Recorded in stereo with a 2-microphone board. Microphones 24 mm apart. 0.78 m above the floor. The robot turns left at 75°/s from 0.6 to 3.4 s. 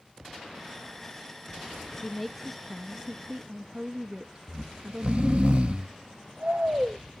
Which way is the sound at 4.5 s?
50° right (ahead or behind).